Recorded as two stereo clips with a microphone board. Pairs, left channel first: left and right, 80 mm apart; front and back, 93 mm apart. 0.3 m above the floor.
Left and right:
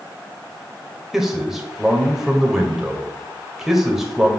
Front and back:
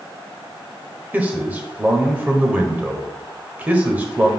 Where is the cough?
I don't hear a cough.